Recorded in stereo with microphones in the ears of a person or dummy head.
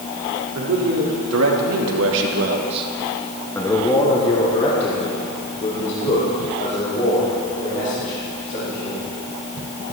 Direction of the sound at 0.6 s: 75° right (ahead or behind).